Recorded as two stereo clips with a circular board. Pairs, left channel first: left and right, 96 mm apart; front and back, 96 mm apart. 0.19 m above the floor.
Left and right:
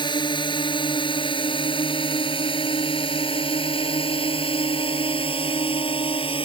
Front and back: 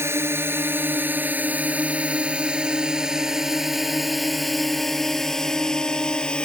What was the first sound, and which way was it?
A drone, 120° left.